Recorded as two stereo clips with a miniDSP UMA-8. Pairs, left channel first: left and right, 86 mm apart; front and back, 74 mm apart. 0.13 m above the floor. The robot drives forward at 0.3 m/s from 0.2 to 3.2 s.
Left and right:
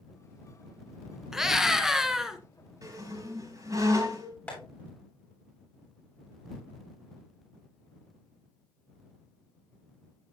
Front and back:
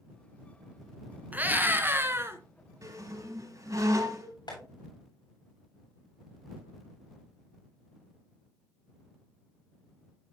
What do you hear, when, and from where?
1.3 s a scream: 165° right, 1.1 m; by 2.4 s 170° right, 1.3 m
2.8 s a squeak: 140° right, 5 m
4.5 s tapping: 20° left, 8.5 m